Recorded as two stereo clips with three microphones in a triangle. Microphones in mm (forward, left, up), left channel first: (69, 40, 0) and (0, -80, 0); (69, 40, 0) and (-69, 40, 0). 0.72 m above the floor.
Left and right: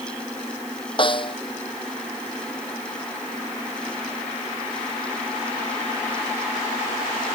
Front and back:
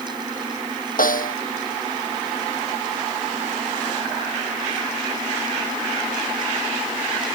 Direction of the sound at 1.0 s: 5° left.